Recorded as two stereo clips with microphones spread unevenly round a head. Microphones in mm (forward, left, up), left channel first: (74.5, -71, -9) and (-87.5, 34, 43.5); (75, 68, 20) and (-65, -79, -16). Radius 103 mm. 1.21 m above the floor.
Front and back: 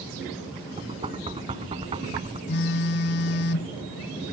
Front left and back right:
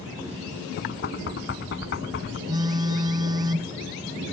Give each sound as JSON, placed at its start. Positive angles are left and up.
{"t": 0.8, "sound": "knocking", "azimuth_deg": 85}
{"t": 2.5, "sound": "a phone buzzing", "azimuth_deg": -60}